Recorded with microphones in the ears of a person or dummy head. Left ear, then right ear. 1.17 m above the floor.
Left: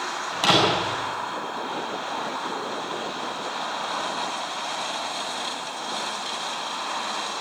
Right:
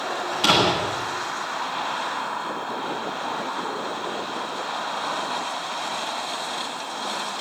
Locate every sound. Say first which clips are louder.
0.3 s a door slam: even; 50° left (ahead or behind), 8 m